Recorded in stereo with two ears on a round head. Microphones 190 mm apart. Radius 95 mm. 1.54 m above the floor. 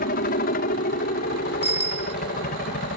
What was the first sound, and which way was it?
A helicopter, 45° left (ahead or behind).